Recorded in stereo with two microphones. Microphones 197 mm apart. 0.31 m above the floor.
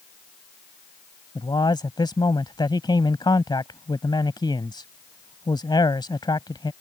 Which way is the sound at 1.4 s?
20° left (ahead or behind).